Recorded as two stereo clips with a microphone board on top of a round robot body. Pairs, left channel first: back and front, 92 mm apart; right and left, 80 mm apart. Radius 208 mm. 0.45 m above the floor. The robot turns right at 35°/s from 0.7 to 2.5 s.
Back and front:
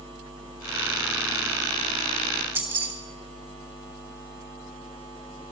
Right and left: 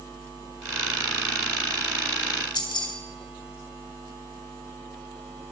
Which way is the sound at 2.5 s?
70° right.